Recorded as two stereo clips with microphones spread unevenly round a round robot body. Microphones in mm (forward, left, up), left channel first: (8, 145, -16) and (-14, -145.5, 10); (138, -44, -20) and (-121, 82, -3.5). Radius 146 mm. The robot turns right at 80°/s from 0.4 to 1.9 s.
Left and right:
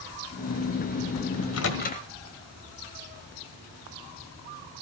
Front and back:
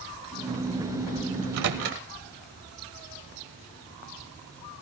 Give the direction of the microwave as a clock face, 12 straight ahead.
9 o'clock.